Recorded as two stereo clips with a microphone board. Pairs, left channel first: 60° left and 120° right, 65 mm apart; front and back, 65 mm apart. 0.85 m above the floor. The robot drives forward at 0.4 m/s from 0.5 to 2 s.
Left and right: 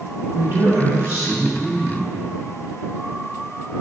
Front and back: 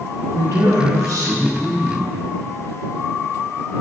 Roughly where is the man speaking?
Behind.